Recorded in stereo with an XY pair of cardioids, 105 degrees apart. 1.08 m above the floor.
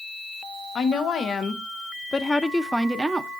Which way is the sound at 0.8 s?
60° left.